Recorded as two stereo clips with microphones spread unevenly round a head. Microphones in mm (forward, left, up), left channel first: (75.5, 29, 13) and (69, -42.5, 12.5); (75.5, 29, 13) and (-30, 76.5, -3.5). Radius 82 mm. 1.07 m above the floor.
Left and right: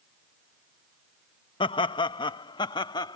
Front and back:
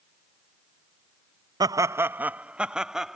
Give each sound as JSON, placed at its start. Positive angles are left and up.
{"t": 1.6, "sound": "laughter", "azimuth_deg": 100}